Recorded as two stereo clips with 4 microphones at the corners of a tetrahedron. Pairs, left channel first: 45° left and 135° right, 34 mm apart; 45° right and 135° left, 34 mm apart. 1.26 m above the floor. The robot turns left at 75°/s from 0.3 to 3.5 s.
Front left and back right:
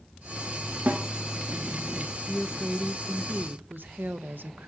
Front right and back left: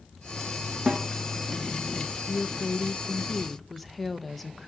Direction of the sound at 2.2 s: 40° right.